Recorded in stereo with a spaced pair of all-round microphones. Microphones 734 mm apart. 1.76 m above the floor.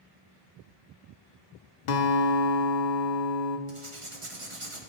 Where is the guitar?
70° left (ahead or behind), 0.8 m.